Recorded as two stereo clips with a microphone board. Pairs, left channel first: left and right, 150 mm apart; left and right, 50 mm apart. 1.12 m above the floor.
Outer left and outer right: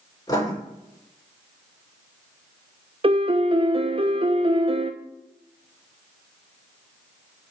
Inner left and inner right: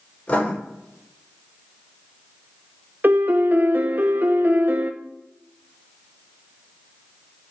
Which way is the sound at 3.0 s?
40° right (ahead or behind).